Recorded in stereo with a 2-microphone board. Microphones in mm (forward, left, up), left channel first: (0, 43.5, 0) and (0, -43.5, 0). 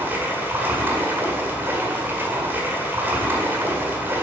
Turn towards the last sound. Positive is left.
turn(degrees=-25)  # may be behind; listen again after turning